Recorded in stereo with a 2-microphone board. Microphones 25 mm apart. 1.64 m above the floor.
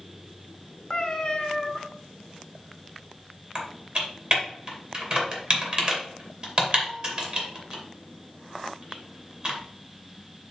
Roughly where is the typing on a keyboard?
Right.